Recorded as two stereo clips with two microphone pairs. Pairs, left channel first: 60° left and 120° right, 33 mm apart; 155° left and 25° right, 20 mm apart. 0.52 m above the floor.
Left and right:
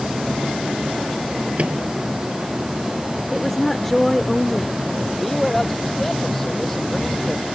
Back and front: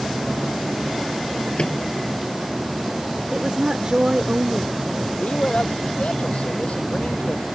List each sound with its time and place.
1.6 s a microwave: 165° right
3.3 s a woman speaking: 15° right
5.1 s a man speaking: 145° left